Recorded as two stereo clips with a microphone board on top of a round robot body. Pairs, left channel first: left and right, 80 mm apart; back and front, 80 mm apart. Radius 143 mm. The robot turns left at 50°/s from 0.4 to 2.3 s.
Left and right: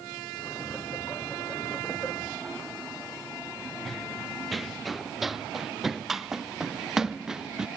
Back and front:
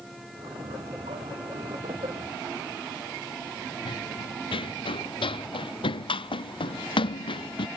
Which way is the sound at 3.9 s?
Straight behind.